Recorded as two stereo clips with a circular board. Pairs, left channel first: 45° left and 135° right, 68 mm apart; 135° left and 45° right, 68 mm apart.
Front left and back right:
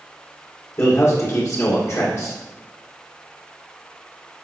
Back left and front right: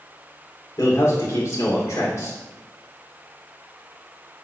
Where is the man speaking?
90° left, 1.9 m.